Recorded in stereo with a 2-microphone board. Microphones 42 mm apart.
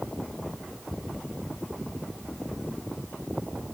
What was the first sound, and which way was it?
Only background noise.